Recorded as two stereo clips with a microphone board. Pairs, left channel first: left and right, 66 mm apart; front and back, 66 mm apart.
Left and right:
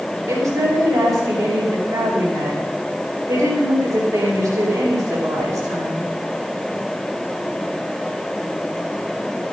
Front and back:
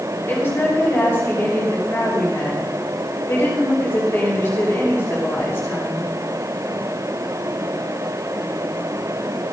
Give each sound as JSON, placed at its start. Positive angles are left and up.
{"t": 0.3, "sound": "a woman speaking", "azimuth_deg": -55, "distance_m": 5.0}